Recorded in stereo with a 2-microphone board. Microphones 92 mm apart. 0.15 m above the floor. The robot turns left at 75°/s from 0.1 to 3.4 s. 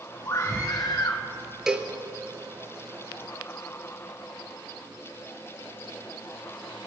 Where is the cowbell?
5° right (ahead or behind), 1.3 m; by 1.9 s 20° right (ahead or behind), 1.3 m.